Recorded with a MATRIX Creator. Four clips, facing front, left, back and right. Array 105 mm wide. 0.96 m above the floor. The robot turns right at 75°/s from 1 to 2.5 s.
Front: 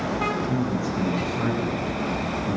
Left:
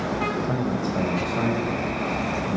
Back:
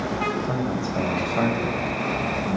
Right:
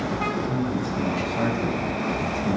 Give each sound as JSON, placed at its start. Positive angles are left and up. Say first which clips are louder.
{"t": 0.5, "sound": "a man speaking", "louder": "left 1 dB, even", "azimuth_deg": 145, "distance_m": 5.0}